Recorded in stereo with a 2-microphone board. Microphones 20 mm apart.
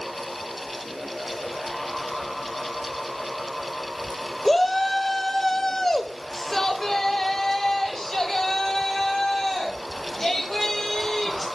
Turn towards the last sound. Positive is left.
turn(degrees=20)  # may be behind; listen again after turning